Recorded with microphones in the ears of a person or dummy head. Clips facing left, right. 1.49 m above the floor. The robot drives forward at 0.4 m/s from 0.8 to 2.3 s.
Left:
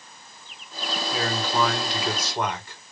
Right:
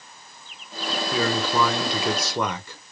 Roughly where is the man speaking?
Right.